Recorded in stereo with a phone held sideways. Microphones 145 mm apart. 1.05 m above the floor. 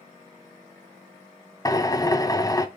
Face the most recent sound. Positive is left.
turn(degrees=25)  # may be behind; listen again after turning